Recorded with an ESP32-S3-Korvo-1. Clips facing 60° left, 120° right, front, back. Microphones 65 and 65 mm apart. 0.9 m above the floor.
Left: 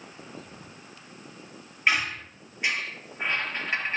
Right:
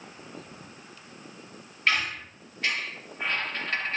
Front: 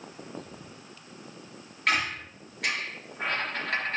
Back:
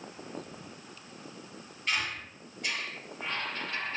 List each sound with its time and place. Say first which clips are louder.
1.9 s a squeak: left 1 dB, front 6 dB; 15° right, 3.5 m